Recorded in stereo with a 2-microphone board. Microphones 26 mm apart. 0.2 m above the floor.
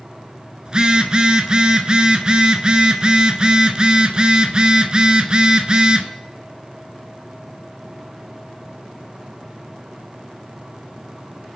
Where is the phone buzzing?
30° right (ahead or behind), 0.9 m.